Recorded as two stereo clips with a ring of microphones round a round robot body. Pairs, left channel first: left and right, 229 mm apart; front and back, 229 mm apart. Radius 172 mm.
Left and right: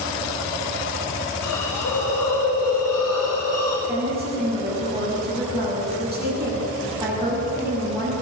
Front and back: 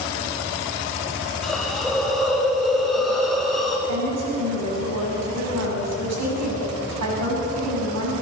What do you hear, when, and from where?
1.4 s a hiss: 90° left, 6.5 m
3.9 s a woman speaking: 175° right, 9 m